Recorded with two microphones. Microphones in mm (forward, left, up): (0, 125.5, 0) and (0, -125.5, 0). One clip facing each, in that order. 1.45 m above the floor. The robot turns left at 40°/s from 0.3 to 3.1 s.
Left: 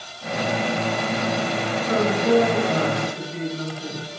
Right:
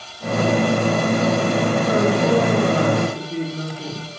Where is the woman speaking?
85° right, 3 m; by 4.1 s 135° right, 3 m.